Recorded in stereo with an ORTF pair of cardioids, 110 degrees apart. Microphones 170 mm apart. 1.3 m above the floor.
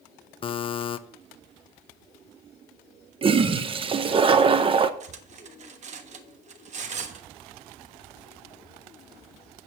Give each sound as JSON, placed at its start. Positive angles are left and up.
{"t": 0.4, "sound": "a buzzer", "azimuth_deg": 30, "distance_m": 0.7}
{"t": 3.2, "sound": "a toilet flushing", "azimuth_deg": -30, "distance_m": 0.8}
{"t": 5.0, "sound": "cutlery clinking", "azimuth_deg": -45, "distance_m": 1.2}